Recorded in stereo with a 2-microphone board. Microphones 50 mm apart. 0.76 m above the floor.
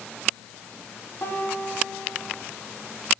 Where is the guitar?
60° left (ahead or behind), 6 m.